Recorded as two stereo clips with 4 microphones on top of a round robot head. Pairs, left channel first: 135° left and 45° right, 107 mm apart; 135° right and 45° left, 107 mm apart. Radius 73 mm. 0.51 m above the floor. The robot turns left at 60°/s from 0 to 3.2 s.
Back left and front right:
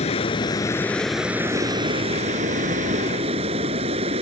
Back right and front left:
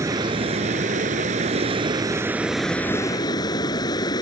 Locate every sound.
0.0 s running water: 110° left; by 4.2 s 80° right